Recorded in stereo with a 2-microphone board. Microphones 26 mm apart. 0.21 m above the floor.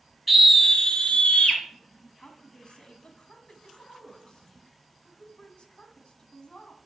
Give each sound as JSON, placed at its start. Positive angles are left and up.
{"t": 0.3, "sound": "a scream", "side_deg": 0, "distance_m": 1.6}
{"t": 2.2, "sound": "a woman speaking", "side_deg": 40, "distance_m": 1.6}